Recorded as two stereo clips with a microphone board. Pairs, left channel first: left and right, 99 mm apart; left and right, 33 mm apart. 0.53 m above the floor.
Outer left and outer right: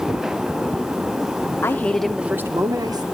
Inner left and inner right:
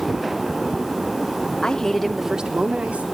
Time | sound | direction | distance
1.6 | a woman speaking | 25° left (ahead or behind) | 0.8 m